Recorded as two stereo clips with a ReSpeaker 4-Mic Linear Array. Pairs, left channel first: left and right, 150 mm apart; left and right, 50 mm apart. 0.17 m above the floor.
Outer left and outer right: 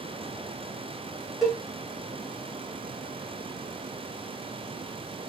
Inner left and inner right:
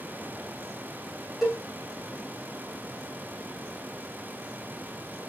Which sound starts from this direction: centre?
A cowbell, at 1.4 s.